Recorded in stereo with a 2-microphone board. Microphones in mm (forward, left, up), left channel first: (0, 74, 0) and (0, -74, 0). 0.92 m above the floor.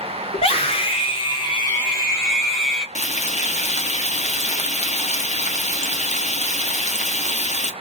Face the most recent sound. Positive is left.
turn(degrees=50)  # may be behind; listen again after turning